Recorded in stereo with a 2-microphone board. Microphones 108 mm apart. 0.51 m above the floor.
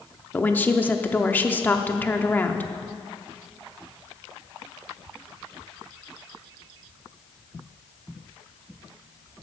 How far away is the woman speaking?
About 0.6 m.